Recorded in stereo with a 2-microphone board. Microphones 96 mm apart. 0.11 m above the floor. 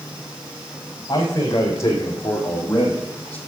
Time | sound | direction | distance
1.1 | a man speaking | 40° left (ahead or behind) | 4.5 m